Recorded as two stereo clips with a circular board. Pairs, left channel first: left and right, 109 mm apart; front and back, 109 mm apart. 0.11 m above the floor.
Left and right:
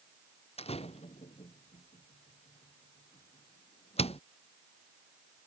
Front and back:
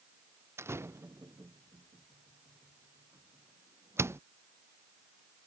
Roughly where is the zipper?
I don't hear a zipper.